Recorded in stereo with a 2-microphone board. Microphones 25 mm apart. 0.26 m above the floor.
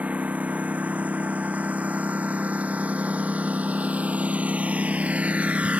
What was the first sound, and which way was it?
A lawn mower, 80° right.